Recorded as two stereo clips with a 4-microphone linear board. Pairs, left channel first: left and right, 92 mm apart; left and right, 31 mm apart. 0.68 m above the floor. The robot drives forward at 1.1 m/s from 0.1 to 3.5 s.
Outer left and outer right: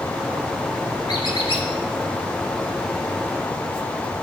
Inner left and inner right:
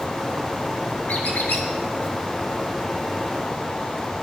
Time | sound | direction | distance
1.1 | a squeak | 50° left (ahead or behind) | 1.6 m